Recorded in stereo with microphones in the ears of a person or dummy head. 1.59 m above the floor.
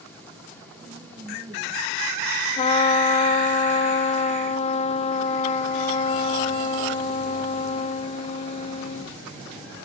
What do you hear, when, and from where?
0.8 s a woman speaking: 20° right (ahead or behind), 2.5 m; by 1.9 s 5° left (ahead or behind), 2.5 m
2.6 s a trumpet: 40° left (ahead or behind), 0.6 m